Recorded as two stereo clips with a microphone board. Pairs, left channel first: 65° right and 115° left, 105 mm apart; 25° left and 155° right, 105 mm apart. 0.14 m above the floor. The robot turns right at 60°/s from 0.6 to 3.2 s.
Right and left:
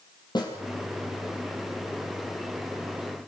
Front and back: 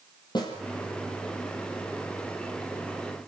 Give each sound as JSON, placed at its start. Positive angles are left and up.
{"t": 0.3, "sound": "a snare drum", "azimuth_deg": -25, "distance_m": 5.5}